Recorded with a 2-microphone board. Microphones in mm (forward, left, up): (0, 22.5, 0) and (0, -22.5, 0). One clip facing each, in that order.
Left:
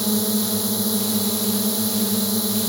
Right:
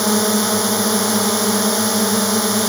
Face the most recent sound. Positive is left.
turn(degrees=-60)  # may be behind; listen again after turning